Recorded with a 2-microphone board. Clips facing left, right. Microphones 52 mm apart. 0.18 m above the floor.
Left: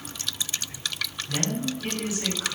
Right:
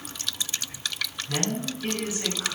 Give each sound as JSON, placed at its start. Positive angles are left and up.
{"t": 1.3, "sound": "a woman speaking", "side_deg": -40, "distance_m": 1.5}